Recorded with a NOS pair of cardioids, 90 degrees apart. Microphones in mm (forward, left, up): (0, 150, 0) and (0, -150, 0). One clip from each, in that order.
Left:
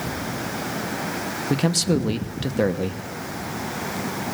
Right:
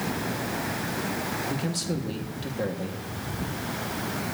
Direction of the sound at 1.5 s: 55° left.